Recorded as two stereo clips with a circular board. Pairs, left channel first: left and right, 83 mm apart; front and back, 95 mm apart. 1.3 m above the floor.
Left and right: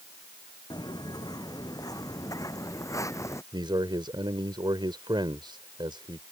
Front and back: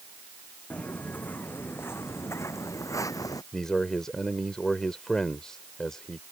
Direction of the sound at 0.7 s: 75° left.